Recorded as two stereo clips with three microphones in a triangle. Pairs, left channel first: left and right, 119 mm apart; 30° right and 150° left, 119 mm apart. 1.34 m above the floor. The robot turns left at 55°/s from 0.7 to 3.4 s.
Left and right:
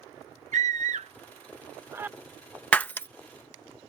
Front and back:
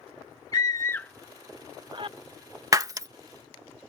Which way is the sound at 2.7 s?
155° left.